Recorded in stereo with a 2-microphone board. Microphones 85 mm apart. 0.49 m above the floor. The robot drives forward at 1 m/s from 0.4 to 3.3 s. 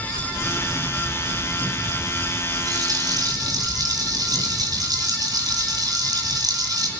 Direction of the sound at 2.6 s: 45° right (ahead or behind).